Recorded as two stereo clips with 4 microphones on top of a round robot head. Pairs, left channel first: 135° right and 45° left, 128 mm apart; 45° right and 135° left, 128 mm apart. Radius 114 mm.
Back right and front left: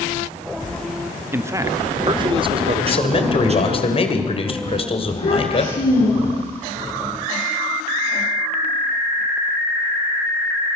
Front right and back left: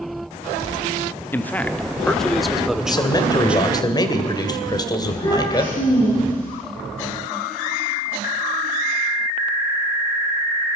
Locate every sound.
1.3 s a man speaking: 5° left, 1.1 m; by 3.8 s 60° left, 1.9 m
2.8 s a man speaking: 100° right, 2.5 m
5.0 s a child speaking: 100° right, 9.5 m